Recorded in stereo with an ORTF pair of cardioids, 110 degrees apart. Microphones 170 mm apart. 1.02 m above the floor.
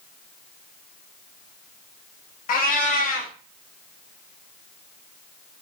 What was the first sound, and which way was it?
A cat meowing, 55° left.